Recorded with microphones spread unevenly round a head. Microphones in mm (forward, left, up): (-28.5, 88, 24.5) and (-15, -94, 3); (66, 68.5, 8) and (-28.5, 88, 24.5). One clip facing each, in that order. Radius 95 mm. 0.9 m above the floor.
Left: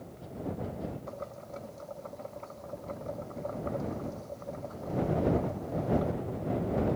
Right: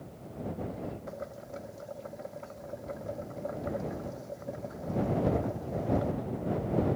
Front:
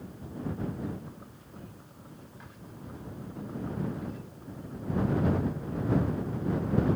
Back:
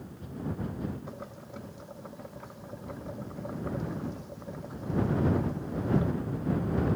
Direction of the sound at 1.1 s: 165° right.